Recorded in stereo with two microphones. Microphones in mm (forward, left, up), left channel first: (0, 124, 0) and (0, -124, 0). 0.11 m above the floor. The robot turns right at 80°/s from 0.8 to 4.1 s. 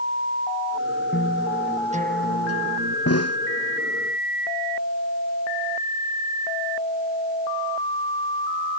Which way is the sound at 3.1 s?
70° left (ahead or behind).